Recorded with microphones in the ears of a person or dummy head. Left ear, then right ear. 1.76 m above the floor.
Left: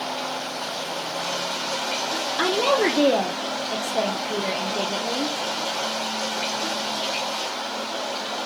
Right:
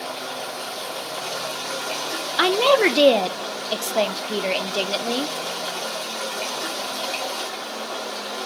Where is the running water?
45° right (ahead or behind), 1.3 m.